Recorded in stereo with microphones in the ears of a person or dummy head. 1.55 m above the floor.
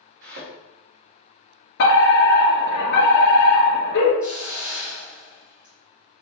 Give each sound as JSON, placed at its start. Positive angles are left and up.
{"t": 0.2, "sound": "a thud", "side_deg": -45, "distance_m": 1.3}
{"t": 1.8, "sound": "a fire alarm", "side_deg": 60, "distance_m": 1.7}
{"t": 4.2, "sound": "a hiss", "side_deg": -10, "distance_m": 2.0}